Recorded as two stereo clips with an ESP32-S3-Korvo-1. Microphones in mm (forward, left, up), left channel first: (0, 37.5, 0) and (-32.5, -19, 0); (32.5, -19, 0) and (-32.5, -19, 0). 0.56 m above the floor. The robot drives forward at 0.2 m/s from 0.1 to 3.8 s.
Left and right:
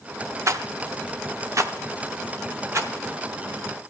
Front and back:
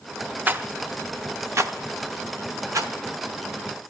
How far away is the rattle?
About 0.5 m.